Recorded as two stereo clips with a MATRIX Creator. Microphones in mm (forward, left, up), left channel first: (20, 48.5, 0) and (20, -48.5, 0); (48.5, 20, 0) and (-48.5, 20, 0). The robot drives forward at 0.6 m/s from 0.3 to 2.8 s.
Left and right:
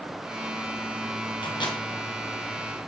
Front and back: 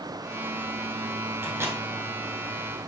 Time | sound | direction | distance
1.4 | a microwave | 115° left | 2 m